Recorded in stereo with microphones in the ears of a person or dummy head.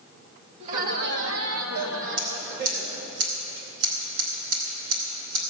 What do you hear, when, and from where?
0.6 s laughter: 45° right (ahead or behind), 1.5 m; by 3.1 s 50° right (ahead or behind), 3 m
2.2 s scissors: 70° right (ahead or behind), 4.5 m